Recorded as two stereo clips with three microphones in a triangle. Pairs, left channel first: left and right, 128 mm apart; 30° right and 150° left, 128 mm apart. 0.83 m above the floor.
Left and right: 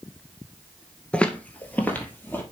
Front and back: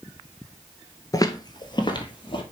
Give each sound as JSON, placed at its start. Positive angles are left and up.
{"t": 1.1, "sound": "footsteps", "azimuth_deg": 15, "distance_m": 0.9}